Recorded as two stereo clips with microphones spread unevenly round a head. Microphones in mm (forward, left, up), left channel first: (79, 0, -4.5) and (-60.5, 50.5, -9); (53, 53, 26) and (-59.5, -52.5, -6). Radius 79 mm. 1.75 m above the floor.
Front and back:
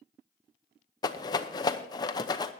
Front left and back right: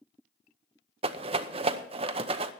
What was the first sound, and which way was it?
A rattle, 80° right.